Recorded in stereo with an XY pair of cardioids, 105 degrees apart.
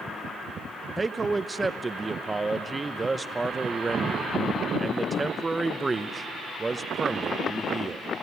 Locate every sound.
1.0 s a man speaking: 20° right, 0.7 m